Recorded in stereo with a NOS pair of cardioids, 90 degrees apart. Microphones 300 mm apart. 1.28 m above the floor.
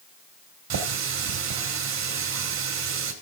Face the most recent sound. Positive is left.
turn(degrees=-60)